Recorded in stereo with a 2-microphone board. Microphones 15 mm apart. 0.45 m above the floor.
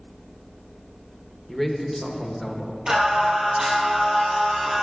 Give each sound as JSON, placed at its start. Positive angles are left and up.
{"t": 1.5, "sound": "a man speaking", "side_deg": 5, "distance_m": 0.9}
{"t": 2.9, "sound": "singing", "side_deg": -75, "distance_m": 3.0}